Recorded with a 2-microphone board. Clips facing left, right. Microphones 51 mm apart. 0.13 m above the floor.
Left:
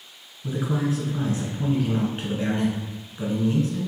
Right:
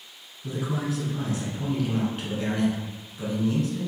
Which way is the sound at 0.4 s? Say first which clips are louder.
Left 4 dB; 30° left (ahead or behind).